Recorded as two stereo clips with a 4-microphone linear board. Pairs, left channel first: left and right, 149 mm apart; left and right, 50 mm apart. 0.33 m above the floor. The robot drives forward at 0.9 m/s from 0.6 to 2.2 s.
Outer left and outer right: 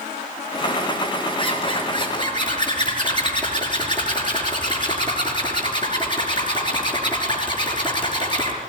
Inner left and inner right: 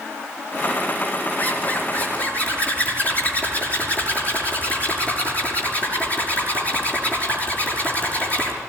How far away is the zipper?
About 5.5 m.